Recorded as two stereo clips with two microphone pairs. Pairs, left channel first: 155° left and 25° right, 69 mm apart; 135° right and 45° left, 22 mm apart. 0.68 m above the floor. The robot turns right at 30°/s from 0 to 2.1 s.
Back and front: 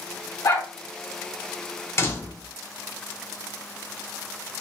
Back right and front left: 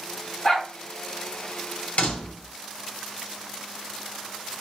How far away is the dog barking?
About 1.9 m.